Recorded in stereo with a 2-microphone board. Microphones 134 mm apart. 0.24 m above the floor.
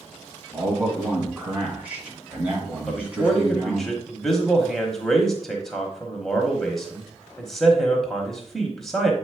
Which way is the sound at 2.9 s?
5° left (ahead or behind).